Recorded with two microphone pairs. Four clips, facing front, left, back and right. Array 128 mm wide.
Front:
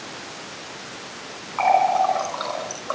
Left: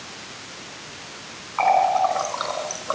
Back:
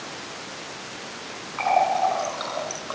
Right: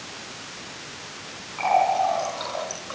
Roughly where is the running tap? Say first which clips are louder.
Left 3 dB, front 3 dB; ahead left.